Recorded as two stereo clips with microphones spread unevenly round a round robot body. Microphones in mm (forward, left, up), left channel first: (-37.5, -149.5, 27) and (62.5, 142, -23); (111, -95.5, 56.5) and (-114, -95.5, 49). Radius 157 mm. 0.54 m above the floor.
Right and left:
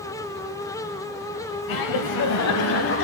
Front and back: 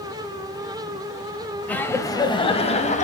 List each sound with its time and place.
1.7 s laughter: 85° right, 2.5 m; by 3.0 s 55° right, 3 m